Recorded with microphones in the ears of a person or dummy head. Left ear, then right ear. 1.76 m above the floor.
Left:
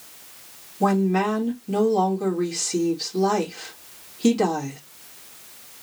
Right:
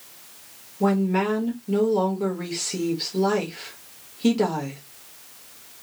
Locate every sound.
0.8 s a woman speaking: 15° right (ahead or behind), 1.4 m